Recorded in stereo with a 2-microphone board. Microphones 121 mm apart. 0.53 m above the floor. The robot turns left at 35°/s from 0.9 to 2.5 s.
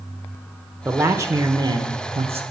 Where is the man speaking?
20° right, 1.1 m; by 2.4 s 70° right, 1.1 m.